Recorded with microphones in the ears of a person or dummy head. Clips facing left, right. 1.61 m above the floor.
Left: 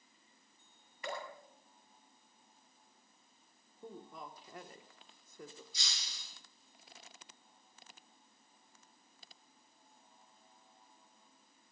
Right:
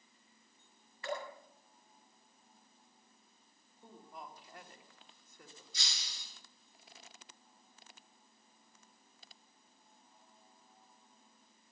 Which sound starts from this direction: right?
Breaking glass, at 5.7 s.